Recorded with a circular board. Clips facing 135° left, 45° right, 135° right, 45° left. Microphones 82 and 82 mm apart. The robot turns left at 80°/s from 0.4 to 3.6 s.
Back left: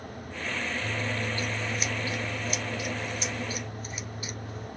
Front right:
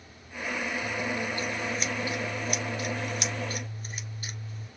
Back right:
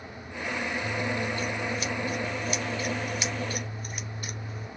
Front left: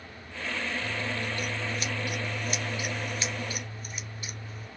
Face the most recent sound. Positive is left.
turn(degrees=-95)